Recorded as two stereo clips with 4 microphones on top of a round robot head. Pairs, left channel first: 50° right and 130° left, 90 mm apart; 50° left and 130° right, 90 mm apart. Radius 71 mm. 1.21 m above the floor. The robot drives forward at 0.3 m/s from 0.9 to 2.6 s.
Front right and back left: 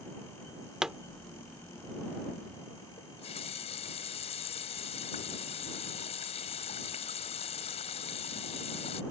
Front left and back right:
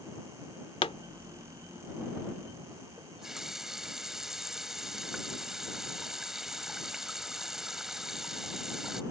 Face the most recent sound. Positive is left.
turn(degrees=-40)